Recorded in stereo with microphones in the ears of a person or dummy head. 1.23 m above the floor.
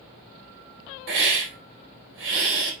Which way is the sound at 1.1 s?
75° right (ahead or behind).